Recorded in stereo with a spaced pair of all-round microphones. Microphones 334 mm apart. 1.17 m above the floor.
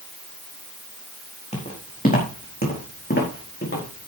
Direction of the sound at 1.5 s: 20° left (ahead or behind).